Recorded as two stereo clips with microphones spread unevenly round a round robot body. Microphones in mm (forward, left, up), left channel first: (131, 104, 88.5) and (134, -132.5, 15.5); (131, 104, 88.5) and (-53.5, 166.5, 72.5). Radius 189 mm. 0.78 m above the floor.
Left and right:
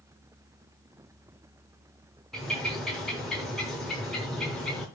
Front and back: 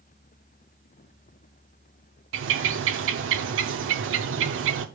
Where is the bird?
170° left, 0.5 m.